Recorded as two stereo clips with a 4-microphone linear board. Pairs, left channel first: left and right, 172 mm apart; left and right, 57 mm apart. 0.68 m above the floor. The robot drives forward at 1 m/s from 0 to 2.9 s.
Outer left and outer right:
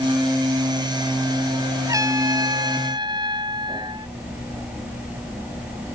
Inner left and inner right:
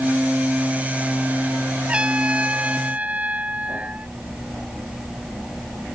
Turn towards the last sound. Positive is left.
turn(degrees=-25)  # may be behind; listen again after turning